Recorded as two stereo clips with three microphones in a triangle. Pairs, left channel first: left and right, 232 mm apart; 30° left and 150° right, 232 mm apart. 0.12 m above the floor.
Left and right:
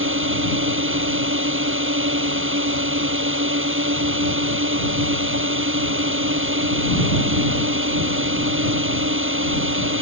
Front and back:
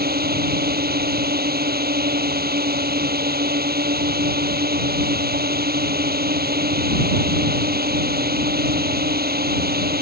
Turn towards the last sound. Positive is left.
turn(degrees=-110)